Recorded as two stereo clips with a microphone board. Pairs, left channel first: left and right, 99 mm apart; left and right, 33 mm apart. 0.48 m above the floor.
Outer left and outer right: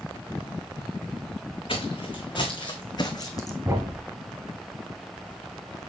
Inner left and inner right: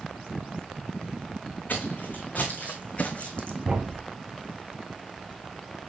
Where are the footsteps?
60° left (ahead or behind), 2 m; by 3.5 s 35° left (ahead or behind), 1.4 m.